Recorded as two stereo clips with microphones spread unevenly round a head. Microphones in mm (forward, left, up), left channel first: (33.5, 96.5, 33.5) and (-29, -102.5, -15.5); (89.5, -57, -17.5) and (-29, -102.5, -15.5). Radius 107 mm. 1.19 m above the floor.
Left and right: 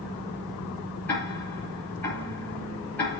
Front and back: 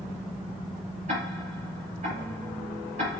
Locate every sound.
1.1 s ticking: 155° left, 4.5 m